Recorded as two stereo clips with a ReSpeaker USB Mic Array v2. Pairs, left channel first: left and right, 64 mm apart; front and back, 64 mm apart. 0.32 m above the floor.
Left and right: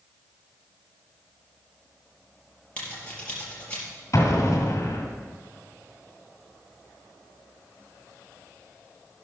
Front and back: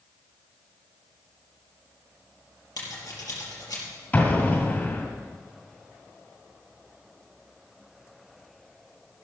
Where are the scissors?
20° left, 4.5 m.